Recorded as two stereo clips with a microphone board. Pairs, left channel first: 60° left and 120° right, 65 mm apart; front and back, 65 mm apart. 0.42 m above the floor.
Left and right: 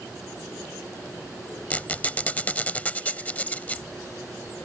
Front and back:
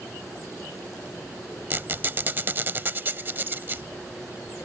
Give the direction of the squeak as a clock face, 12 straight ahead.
8 o'clock.